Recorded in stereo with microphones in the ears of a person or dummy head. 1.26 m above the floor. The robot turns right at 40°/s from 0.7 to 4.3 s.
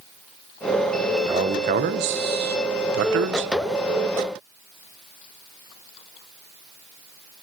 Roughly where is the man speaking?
Right.